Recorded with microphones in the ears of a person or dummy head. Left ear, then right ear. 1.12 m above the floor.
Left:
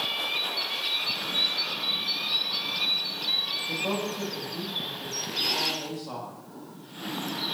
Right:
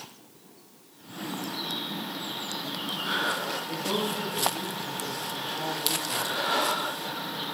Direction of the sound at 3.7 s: 40° left (ahead or behind).